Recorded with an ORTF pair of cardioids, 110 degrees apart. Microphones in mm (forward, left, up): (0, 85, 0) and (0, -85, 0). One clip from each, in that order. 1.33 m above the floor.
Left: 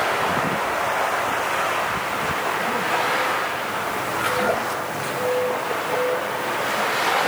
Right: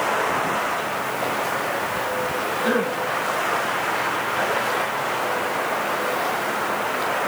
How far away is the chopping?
I don't hear chopping.